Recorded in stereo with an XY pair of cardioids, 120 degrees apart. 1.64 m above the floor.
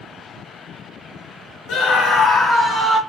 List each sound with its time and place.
1.7 s a scream: 70° left, 0.7 m; by 3.0 s 10° left, 0.7 m